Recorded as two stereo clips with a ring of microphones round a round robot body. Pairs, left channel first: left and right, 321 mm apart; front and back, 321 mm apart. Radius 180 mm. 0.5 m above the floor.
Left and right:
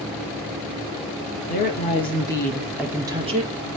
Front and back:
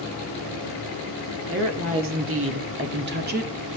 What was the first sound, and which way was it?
A woman speaking, 145° left.